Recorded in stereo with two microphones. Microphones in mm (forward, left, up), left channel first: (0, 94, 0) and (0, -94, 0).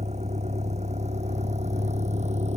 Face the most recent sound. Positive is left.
turn(degrees=-35)  # may be behind; listen again after turning